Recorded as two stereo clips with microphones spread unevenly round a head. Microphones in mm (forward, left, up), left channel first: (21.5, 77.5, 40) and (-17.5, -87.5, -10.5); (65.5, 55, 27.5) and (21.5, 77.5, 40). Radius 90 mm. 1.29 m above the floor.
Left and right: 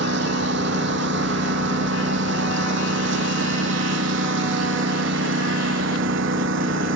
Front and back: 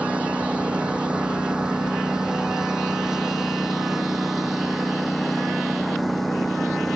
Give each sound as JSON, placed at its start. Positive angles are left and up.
{"t": 0.0, "sound": "a lawn mower", "azimuth_deg": -130}